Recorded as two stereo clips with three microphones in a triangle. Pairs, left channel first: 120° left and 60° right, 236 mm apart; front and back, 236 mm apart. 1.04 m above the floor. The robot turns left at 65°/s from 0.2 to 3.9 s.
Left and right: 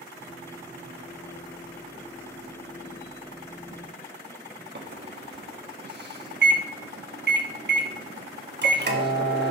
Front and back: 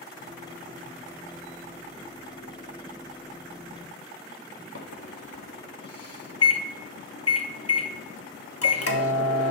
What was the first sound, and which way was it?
A microwave, 15° right.